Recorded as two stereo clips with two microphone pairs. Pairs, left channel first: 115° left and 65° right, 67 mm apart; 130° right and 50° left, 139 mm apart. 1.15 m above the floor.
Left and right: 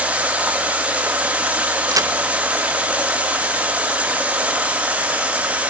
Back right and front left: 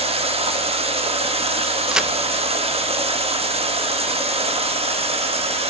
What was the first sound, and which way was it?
Running water, 5° left.